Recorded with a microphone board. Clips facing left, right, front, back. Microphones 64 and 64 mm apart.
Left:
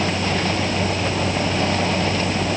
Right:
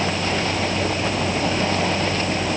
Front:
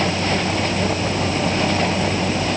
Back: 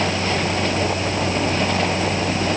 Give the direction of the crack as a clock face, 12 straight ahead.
No crack in this recording.